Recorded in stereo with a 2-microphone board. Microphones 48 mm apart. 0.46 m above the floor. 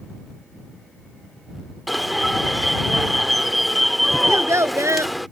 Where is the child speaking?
80° right.